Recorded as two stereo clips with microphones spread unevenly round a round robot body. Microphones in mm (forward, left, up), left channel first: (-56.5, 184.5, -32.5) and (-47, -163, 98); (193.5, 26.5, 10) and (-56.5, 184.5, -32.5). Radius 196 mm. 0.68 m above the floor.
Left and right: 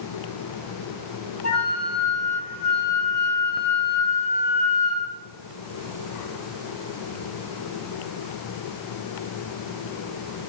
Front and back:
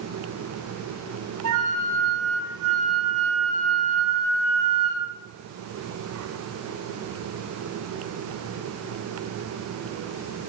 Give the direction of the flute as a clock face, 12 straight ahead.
7 o'clock.